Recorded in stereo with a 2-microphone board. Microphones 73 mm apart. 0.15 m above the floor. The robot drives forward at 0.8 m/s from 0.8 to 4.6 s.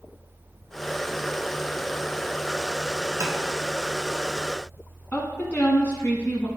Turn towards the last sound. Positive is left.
turn(degrees=20)  # may be behind; listen again after turning